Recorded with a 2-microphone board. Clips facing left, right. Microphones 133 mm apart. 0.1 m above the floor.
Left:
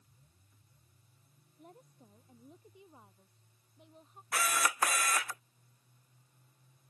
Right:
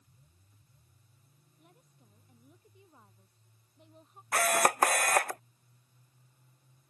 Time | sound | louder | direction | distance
1.6 | a woman speaking | left 8 dB | 40° left (ahead or behind) | ?
4.3 | a camera shutter | right 7 dB | 55° right (ahead or behind) | ?